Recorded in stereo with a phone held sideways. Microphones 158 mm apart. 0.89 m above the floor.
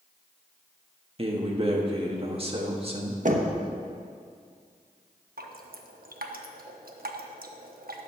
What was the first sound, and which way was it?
A man speaking, 40° right (ahead or behind).